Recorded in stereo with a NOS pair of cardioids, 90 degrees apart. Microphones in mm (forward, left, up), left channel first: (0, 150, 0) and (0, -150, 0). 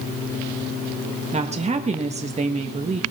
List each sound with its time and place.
1.3 s a woman speaking: 20° right, 1.5 m